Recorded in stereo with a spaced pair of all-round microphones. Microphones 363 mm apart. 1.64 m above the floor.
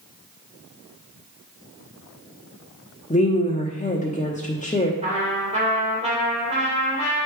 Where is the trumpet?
20° right (ahead or behind), 3 m.